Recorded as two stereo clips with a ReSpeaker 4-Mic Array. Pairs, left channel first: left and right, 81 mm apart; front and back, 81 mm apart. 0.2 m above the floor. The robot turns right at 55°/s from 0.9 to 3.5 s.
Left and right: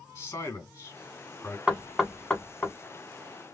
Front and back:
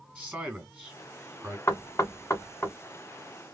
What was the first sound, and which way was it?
A man speaking, 125° left.